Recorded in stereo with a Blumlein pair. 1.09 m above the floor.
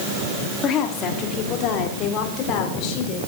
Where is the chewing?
I don't hear chewing.